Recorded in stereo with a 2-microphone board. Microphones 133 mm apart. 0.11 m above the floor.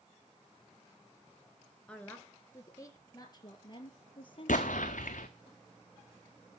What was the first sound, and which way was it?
A woman speaking, 10° left (ahead or behind).